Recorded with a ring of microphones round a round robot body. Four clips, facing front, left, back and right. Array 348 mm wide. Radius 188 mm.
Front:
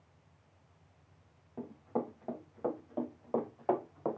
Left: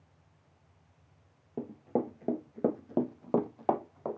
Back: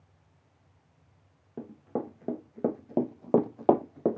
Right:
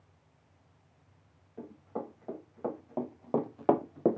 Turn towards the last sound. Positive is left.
turn(degrees=-125)